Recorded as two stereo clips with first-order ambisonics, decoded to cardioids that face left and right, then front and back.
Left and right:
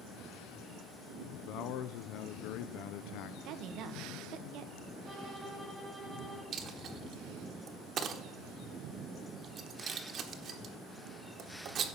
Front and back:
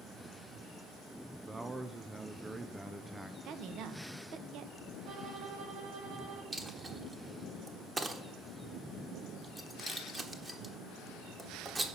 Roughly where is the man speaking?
Left.